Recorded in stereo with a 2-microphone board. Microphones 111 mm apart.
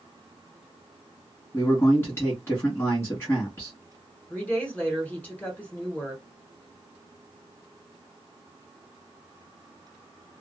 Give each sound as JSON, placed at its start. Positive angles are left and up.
{"t": 1.5, "sound": "a man speaking", "side_deg": 20, "distance_m": 1.2}
{"t": 4.3, "sound": "a woman speaking", "side_deg": 15, "distance_m": 1.3}